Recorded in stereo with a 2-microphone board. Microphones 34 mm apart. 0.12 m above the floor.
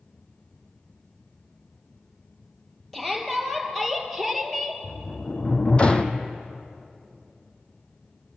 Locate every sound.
2.9 s a shout: 5° left (ahead or behind), 3.5 m; by 4.8 s 5° right (ahead or behind), 2.5 m
4.8 s a sliding door: 30° left (ahead or behind), 1.0 m